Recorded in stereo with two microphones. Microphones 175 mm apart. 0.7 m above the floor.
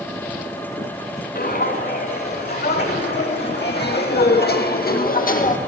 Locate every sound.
1.4 s footsteps: 60° left (ahead or behind), 3 m; by 5.6 s 50° left (ahead or behind), 1.4 m